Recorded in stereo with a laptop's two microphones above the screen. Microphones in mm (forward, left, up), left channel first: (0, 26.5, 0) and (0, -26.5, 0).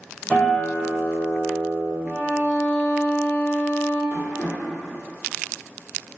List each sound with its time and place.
0.3 s a guitar: 20° left (ahead or behind), 1.5 m
2.0 s a violin: 35° left (ahead or behind), 1.0 m
4.1 s tapping: 70° left (ahead or behind), 1.1 m